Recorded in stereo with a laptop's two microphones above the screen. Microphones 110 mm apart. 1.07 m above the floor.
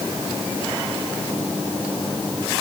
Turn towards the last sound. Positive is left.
No sound to turn to.